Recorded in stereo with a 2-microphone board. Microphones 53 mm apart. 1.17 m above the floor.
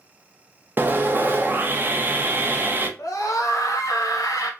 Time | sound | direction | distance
0.8 | sawing | 35° right (ahead or behind) | 0.5 m
3.0 | a scream | 80° left | 0.5 m